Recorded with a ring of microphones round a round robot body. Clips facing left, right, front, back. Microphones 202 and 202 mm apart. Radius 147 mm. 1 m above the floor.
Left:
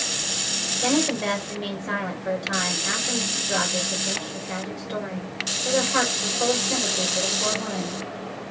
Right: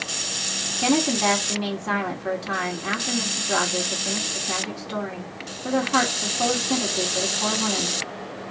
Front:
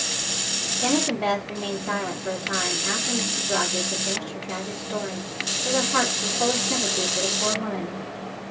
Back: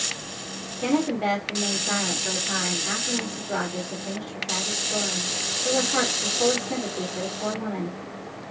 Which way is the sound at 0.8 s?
100° right.